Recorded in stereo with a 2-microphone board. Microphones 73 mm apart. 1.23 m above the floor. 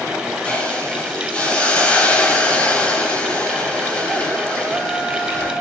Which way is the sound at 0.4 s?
15° left (ahead or behind).